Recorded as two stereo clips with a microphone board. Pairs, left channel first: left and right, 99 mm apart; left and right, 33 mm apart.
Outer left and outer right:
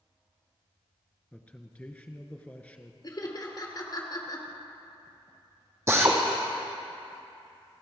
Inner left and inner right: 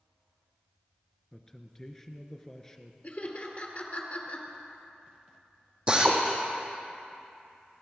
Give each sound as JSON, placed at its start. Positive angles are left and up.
{"t": 1.3, "sound": "a man speaking", "side_deg": 15, "distance_m": 1.3}
{"t": 3.0, "sound": "laughter", "side_deg": 45, "distance_m": 2.5}
{"t": 5.9, "sound": "a drill", "side_deg": -25, "distance_m": 2.5}